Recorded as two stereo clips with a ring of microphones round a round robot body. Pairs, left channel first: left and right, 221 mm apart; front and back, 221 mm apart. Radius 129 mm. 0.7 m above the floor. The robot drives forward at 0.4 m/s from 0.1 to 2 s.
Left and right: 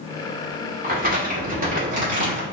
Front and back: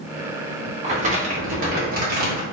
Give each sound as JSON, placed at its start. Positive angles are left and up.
{"t": 0.8, "sound": "crumpling", "azimuth_deg": -130, "distance_m": 1.8}